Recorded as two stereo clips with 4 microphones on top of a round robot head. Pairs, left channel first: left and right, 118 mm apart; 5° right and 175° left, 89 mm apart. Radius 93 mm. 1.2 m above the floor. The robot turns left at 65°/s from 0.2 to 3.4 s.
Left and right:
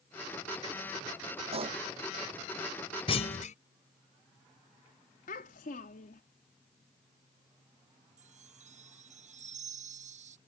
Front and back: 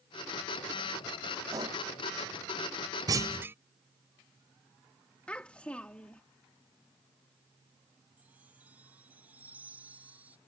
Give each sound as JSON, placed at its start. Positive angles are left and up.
{"t": 1.5, "sound": "a pop", "azimuth_deg": -125}
{"t": 3.1, "sound": "a clunk", "azimuth_deg": 130}
{"t": 5.3, "sound": "a child speaking", "azimuth_deg": 70}
{"t": 8.2, "sound": "a chime", "azimuth_deg": -110}